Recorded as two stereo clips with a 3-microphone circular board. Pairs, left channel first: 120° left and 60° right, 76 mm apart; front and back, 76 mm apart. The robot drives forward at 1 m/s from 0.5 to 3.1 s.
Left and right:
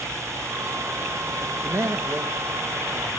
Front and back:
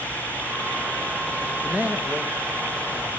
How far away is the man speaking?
About 2 m.